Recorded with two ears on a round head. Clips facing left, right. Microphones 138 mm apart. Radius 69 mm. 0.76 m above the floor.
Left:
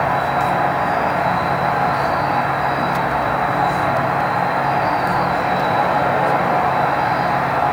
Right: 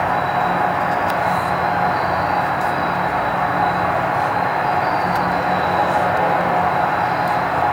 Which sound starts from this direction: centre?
An insect, at 0.0 s.